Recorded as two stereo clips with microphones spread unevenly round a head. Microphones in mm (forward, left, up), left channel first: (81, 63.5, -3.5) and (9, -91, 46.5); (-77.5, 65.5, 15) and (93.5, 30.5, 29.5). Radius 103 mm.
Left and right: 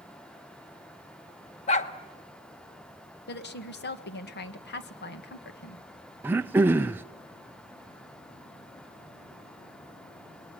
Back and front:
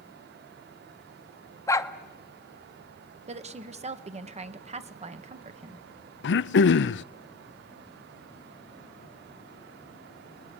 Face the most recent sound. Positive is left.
turn(degrees=160)